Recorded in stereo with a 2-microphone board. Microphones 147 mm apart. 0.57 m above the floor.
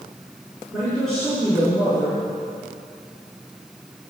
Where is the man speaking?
Centre (ahead or behind), 6 m.